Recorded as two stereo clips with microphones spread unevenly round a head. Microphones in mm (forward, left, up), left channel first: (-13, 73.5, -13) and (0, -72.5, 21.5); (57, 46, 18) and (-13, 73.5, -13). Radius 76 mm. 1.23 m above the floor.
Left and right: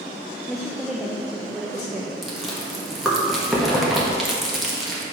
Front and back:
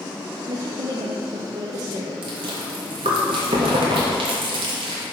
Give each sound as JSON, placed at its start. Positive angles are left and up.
{"t": 0.5, "sound": "a woman speaking", "azimuth_deg": 180, "distance_m": 0.5}
{"t": 2.2, "sound": "chewing", "azimuth_deg": -170, "distance_m": 1.0}